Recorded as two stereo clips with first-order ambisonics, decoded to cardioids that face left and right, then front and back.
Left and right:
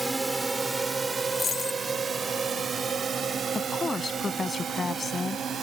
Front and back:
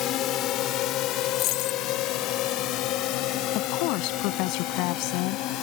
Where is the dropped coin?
20° left.